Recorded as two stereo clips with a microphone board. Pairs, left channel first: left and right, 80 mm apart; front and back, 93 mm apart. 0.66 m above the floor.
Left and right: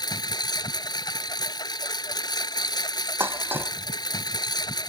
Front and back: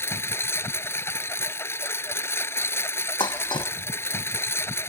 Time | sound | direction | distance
0.0 | a lawn mower | 60° left | ?
3.2 | dishes clattering | 25° right | ?